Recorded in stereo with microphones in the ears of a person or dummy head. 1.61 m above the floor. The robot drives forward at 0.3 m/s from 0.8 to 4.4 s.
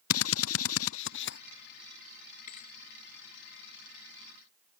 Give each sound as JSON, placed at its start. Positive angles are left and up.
{"t": 0.1, "sound": "a drill", "side_deg": 70}
{"t": 2.5, "sound": "a thud", "side_deg": 45}